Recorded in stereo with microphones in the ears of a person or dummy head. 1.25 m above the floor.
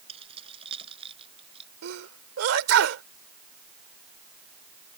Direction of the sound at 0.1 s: 35° right (ahead or behind).